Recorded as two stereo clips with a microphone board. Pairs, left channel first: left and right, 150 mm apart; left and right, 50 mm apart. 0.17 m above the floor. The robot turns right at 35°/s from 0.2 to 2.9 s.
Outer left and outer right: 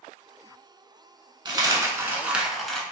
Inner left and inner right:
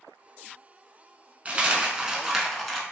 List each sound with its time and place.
1.4 s a dropped coin: 40° right, 0.5 m; by 2.8 s 5° left, 0.5 m